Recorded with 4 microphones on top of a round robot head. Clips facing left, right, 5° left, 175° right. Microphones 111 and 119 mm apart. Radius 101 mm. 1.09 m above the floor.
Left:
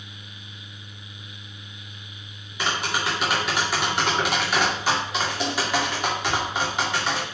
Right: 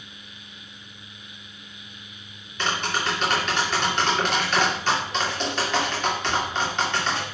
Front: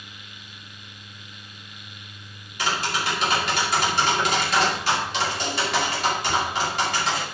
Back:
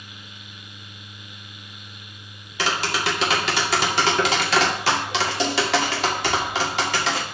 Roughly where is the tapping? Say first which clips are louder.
Even, back 2 dB; behind.